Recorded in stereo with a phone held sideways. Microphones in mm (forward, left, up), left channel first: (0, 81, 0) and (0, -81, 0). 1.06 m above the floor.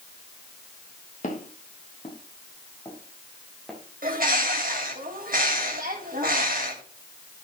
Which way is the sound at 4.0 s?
60° right (ahead or behind).